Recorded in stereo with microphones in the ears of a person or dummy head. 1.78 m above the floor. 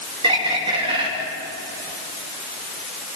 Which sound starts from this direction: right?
A bird, at 0.2 s.